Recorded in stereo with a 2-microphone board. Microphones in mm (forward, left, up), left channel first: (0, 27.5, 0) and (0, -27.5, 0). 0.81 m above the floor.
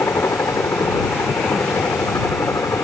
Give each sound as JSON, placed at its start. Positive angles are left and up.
{"t": 0.0, "sound": "a helicopter", "side_deg": 60}